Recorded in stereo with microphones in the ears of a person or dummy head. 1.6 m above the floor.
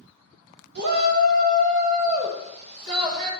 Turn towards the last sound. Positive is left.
turn(degrees=-25)  # may be behind; listen again after turning